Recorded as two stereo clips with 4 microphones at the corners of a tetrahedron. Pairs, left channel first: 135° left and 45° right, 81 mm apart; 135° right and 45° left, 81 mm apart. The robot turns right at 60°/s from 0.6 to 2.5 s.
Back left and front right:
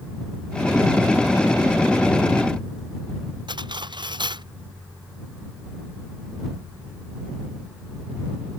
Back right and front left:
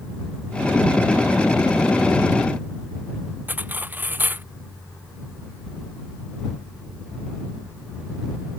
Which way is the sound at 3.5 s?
20° right.